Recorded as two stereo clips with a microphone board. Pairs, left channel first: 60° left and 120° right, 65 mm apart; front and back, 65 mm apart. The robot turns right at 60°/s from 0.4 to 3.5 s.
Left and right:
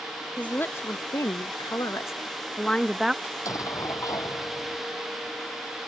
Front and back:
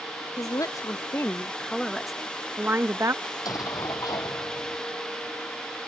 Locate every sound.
0.4 s a woman speaking: 5° right; by 3.1 s 160° left
3.2 s an explosion: 10° left; by 4.9 s 25° left